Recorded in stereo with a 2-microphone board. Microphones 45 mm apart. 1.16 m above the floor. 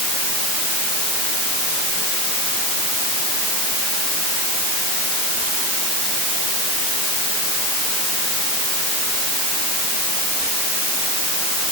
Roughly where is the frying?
I don't hear frying.